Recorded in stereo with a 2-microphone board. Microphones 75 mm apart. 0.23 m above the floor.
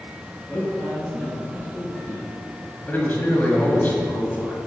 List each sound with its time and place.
0.5 s a man speaking: 10° left (ahead or behind), 1.6 m; by 2.2 s centre (ahead or behind), 2.5 m
2.9 s a man speaking: 25° left (ahead or behind), 1.1 m